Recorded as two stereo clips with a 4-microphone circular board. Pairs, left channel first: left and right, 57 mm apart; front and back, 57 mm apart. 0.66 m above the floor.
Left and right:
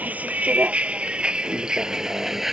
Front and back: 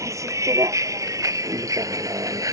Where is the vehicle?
150° right; by 2.5 s 175° right.